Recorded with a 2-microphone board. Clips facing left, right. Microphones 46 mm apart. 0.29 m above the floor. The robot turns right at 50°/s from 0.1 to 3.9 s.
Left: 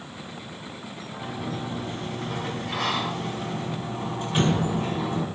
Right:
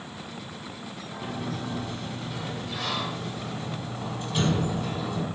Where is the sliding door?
5° left, 0.8 m; by 5.3 s 135° left, 0.8 m.